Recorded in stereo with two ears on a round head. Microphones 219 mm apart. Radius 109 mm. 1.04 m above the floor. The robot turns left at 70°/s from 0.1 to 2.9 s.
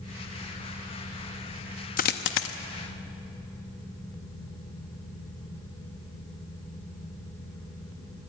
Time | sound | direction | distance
2.0 | a dropped coin | 35° left (ahead or behind) | 0.6 m